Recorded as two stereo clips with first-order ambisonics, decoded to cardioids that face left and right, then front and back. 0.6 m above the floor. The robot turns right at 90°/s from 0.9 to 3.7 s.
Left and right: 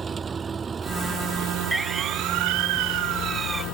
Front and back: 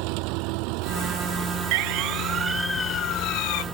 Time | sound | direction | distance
0.0 | an engine running | 160° right | ?
1.7 | a siren | 175° right | ?